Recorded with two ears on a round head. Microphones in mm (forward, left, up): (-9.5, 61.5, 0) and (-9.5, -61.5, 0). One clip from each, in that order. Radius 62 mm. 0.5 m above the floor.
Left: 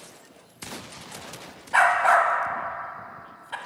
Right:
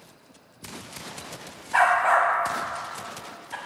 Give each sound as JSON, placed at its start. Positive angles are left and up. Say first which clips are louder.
{"t": 1.7, "sound": "a dog barking", "louder": "left 1 dB", "side_deg": 15, "distance_m": 0.8}